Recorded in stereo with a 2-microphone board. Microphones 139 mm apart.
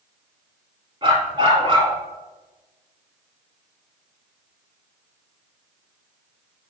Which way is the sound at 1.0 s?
40° right (ahead or behind).